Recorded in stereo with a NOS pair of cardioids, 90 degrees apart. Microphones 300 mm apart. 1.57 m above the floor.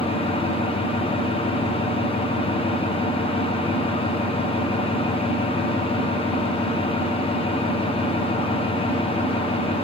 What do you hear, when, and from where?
0.0 s an engine running: 20° left, 0.9 m